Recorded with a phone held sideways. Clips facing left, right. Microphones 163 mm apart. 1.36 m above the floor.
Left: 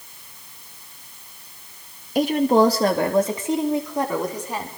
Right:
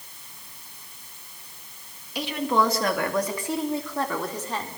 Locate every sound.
2.1 s a woman speaking: 45° left (ahead or behind), 2.5 m; by 4.7 s 10° left (ahead or behind), 5 m